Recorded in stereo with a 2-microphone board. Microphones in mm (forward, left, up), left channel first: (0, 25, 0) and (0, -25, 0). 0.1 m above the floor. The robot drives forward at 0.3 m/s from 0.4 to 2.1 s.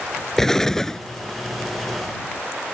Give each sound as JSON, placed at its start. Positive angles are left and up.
{"t": 0.4, "sound": "an explosion", "side_deg": 10}